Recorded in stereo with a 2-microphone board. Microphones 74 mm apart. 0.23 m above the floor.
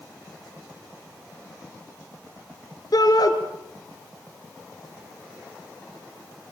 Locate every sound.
2.9 s a shout: 60° left (ahead or behind), 3.5 m